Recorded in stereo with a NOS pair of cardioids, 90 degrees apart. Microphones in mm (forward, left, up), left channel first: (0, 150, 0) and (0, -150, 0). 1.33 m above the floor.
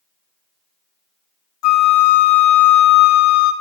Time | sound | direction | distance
1.6 | a flute | 60° left | 0.7 m